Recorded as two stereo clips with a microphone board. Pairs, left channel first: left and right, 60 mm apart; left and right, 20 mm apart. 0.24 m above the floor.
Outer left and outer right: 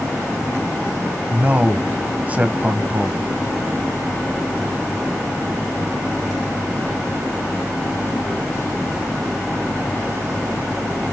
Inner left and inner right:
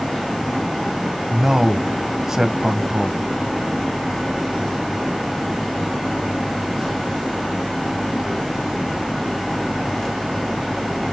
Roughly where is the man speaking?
Right.